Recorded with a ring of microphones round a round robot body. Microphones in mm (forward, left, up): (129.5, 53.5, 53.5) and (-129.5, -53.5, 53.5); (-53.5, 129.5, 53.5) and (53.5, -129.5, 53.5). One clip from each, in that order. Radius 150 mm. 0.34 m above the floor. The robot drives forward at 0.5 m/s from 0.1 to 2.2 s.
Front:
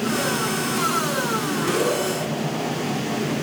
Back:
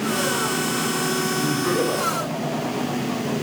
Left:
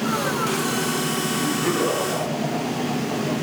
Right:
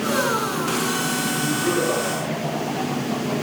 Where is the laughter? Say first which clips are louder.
Back 1 dB, even; 160° left, 5 m.